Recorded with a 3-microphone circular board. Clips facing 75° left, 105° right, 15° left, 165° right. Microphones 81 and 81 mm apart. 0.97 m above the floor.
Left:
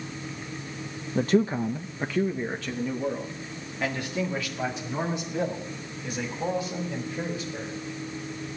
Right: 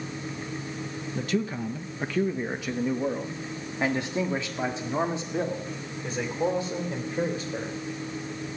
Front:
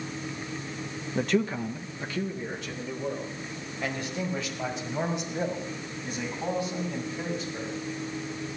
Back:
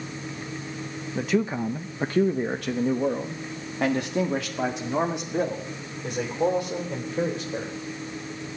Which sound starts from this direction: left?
A man speaking, at 1.1 s.